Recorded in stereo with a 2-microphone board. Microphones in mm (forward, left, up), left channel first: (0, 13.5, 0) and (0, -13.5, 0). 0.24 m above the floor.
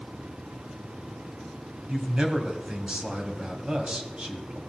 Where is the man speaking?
35° right (ahead or behind), 1.9 m.